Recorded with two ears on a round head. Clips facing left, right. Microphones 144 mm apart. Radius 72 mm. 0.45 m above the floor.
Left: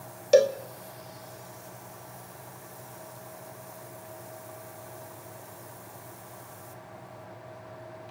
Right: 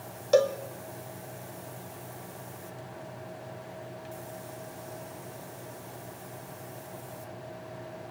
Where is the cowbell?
20° left (ahead or behind), 1.1 m.